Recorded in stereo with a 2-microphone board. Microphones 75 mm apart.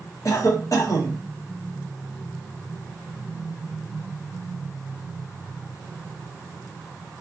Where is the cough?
50° left (ahead or behind), 0.9 m.